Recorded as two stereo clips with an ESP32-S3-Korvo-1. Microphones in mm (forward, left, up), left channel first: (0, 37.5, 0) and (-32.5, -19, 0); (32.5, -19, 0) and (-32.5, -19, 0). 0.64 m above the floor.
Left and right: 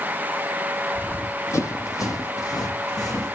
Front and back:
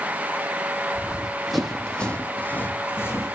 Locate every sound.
0.9 s running footsteps: 110° left, 1.2 m; by 3.4 s 45° left, 2 m